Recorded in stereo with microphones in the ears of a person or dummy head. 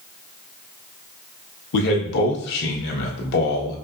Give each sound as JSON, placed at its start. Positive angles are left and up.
{"t": 1.7, "sound": "a man speaking", "side_deg": 60, "distance_m": 1.3}